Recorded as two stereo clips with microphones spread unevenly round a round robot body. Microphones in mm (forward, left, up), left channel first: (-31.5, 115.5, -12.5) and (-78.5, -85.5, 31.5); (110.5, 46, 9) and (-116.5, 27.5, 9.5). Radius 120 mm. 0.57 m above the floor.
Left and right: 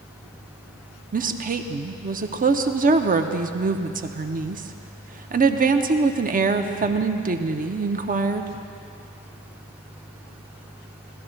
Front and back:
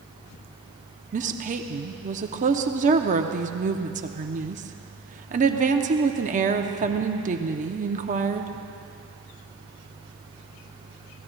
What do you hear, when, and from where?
1.1 s a woman speaking: 145° right, 0.8 m